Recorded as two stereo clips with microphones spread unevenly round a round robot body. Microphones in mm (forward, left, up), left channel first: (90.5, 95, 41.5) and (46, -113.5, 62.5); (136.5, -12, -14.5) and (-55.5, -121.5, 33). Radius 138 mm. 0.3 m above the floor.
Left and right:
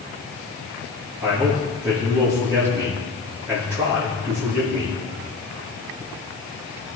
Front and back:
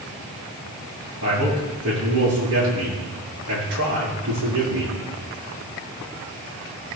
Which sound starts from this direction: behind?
A man speaking, at 1.2 s.